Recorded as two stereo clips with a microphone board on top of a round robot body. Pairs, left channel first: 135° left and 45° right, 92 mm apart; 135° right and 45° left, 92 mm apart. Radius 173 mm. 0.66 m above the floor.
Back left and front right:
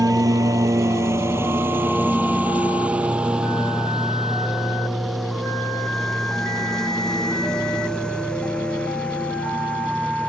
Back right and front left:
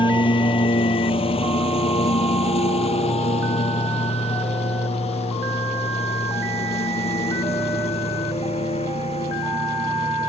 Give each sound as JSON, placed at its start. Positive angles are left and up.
{"t": 0.0, "sound": "a lawn mower", "azimuth_deg": -95}